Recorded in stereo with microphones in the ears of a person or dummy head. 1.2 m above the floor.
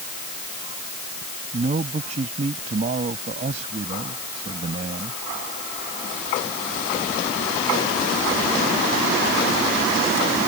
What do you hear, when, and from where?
1.5 s a man speaking: 35° right (ahead or behind)